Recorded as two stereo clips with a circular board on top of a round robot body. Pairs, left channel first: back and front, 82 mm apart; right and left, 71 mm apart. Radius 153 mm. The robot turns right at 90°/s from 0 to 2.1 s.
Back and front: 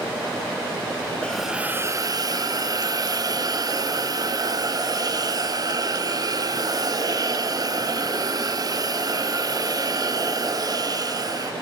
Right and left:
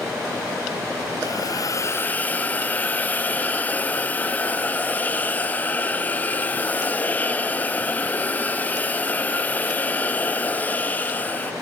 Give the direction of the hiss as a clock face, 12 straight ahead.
3 o'clock.